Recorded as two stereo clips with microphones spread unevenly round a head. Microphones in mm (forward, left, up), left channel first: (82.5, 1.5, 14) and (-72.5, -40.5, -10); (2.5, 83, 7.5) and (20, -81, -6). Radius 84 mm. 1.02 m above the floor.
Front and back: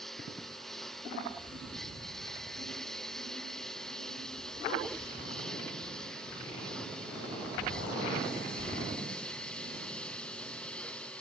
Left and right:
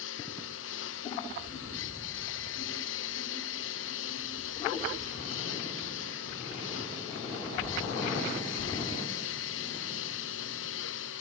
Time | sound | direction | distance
0.0 | a lawn mower | 105° left | ?